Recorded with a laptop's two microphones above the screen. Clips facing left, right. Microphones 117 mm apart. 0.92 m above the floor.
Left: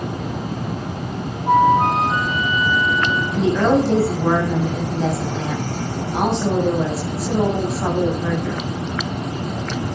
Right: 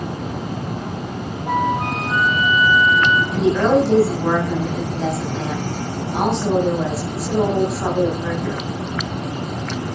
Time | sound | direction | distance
1.5 | a flute | 35° left (ahead or behind) | 2.5 m
3.3 | a woman speaking | centre (ahead or behind) | 7 m